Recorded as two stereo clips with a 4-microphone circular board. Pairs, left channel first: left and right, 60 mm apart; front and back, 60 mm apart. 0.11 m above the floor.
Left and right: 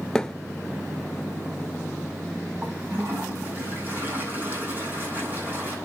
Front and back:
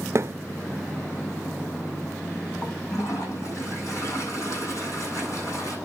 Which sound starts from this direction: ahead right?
A toilet flushing, at 2.6 s.